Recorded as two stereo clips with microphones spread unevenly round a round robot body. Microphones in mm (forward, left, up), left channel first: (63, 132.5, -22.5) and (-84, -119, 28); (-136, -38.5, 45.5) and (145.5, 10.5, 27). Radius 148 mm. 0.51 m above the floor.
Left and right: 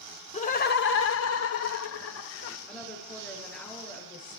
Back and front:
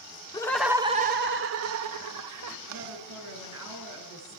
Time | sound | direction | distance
0.3 | laughter | 115° left | 1.1 m
2.7 | a woman speaking | 25° right | 6.5 m